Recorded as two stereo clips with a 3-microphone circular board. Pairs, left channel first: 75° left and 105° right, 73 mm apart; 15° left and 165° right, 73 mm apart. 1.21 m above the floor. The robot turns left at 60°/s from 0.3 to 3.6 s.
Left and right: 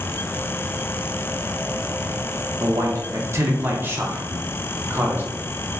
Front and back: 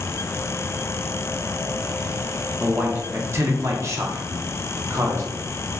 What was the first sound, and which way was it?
A man speaking, 90° right.